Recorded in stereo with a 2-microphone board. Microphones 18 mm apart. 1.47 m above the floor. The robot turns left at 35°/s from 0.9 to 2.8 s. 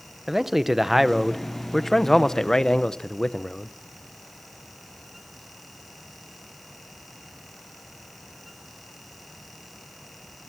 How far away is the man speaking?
About 0.9 m.